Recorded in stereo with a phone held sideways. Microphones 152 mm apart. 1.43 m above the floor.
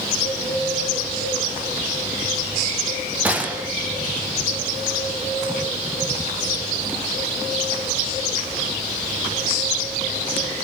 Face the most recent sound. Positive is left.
turn(degrees=-10)  # may be behind; listen again after turning